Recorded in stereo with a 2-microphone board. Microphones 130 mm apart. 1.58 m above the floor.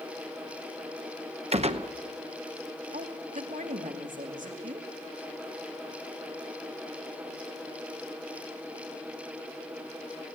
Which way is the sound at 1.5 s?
55° right (ahead or behind).